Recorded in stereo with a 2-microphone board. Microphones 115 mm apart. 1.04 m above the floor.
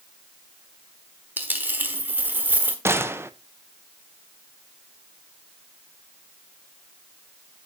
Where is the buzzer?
No buzzer in this recording.